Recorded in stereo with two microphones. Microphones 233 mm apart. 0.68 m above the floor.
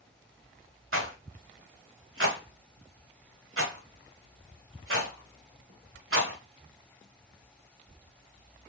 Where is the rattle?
65° right (ahead or behind), 0.9 m.